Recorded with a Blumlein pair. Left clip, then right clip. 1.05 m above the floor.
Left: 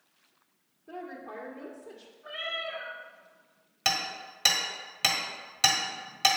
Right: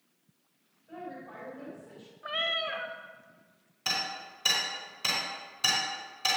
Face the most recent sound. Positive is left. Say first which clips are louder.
# left 3 dB
turn(degrees=40)